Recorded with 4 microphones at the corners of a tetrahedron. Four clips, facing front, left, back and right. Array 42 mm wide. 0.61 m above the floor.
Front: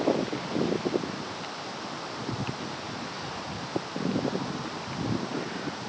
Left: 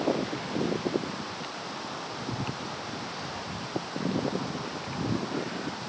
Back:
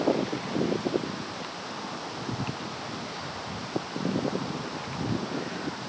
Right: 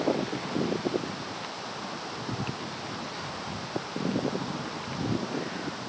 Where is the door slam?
No door slam in this recording.